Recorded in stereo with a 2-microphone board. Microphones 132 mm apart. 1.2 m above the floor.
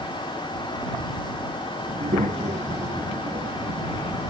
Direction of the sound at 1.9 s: 75° right (ahead or behind).